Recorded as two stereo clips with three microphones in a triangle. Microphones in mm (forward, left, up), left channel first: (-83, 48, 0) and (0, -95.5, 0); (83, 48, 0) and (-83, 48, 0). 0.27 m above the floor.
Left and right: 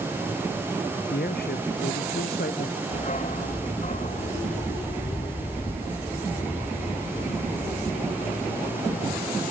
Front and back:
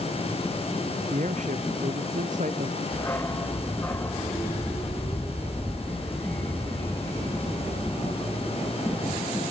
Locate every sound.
1.1 s a man speaking: 140° left
2.9 s a dog barking: 75° left